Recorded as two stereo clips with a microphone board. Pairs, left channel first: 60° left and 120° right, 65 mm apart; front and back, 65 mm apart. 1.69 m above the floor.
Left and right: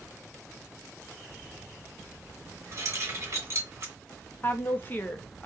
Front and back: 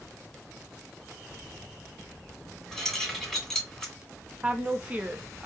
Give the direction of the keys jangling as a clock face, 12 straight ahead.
3 o'clock.